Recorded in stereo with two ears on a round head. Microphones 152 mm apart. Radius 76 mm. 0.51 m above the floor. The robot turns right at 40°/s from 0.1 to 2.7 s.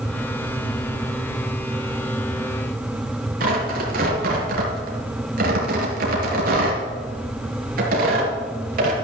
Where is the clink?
I don't hear a clink.